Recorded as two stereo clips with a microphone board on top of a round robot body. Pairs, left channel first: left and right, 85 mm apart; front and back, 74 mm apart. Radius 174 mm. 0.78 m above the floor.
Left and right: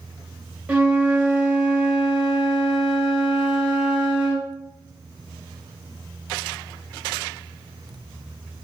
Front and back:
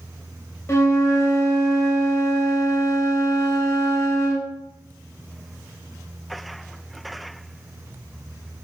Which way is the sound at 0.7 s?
20° right.